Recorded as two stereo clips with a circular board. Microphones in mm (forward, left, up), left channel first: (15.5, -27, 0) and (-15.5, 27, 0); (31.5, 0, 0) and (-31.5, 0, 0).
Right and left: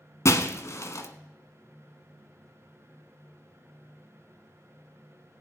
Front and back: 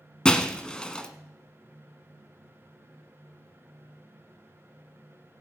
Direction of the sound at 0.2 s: 75° right.